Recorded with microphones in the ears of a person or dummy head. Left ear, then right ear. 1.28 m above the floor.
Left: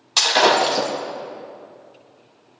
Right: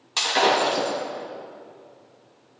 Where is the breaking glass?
20° left (ahead or behind), 3 m.